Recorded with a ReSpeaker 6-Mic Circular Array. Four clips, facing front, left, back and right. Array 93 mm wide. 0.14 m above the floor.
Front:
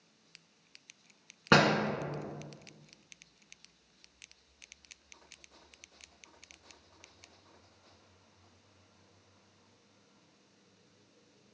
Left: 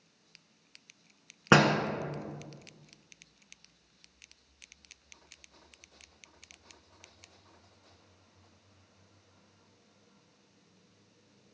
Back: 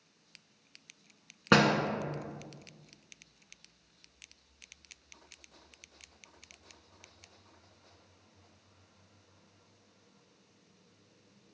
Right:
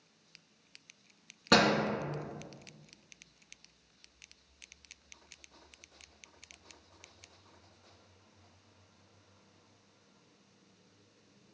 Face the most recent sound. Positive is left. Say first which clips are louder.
# left 3 dB, even
turn(degrees=90)